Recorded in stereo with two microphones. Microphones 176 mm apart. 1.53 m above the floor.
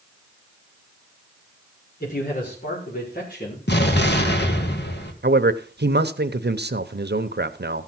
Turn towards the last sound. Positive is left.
turn(degrees=-70)  # may be behind; listen again after turning